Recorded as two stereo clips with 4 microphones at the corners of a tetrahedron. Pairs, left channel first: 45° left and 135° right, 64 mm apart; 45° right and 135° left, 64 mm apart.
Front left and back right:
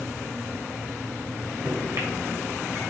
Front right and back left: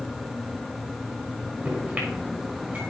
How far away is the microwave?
About 2.5 m.